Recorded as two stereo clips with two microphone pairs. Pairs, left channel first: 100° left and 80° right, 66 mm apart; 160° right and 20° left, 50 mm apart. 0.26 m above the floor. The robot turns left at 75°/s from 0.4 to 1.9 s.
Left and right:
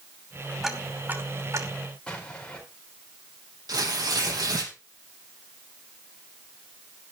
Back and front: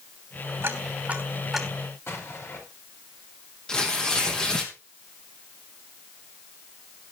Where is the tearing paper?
85° right, 3 m.